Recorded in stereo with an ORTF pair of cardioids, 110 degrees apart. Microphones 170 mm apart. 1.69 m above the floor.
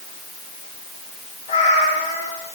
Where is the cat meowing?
40° left, 6.5 m.